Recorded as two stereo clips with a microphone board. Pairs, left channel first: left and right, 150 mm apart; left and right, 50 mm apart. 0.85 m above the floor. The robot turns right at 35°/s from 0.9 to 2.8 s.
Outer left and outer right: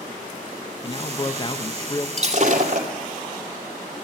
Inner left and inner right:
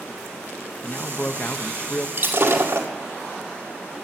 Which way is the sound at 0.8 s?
85° left.